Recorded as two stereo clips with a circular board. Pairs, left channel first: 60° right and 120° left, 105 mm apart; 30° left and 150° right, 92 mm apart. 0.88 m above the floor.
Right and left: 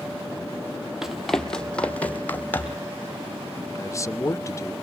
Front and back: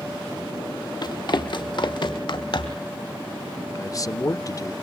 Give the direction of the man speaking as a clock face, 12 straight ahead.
12 o'clock.